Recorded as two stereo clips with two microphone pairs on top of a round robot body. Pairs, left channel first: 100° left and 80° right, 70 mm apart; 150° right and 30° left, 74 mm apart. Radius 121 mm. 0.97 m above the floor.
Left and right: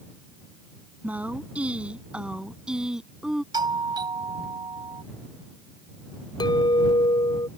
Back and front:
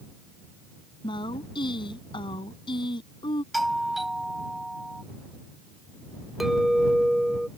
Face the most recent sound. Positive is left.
turn(degrees=115)